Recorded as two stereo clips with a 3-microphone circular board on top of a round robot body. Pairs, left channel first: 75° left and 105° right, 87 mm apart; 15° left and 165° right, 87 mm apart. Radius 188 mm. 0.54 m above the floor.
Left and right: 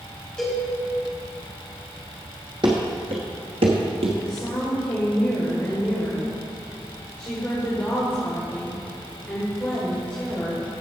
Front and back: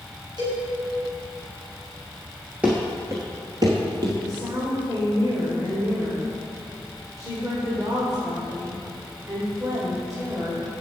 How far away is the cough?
No cough in this recording.